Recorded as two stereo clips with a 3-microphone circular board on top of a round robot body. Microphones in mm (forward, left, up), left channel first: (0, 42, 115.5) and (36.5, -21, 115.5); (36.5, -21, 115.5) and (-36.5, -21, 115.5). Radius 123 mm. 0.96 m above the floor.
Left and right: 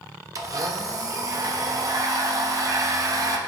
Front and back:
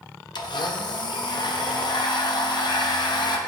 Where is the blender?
20° right, 1.1 m.